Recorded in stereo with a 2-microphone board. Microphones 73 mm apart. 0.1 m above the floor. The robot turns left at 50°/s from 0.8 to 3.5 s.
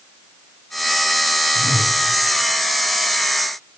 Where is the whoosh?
5° left (ahead or behind), 6 m; by 2.0 s 25° left (ahead or behind), 6 m.